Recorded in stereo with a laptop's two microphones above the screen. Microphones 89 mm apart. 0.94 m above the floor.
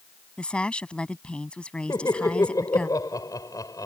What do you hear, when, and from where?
0.4 s a woman speaking: 10° left (ahead or behind)
1.9 s laughter: 40° left (ahead or behind)